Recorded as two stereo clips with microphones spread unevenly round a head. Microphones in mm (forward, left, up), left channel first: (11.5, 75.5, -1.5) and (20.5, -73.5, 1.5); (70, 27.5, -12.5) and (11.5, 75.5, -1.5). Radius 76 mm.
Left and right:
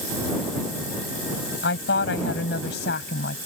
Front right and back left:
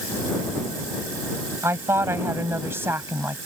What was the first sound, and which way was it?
A woman speaking, 90° left.